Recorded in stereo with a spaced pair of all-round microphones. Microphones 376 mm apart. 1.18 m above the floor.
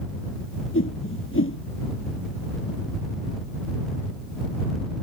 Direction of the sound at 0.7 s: 35° left (ahead or behind).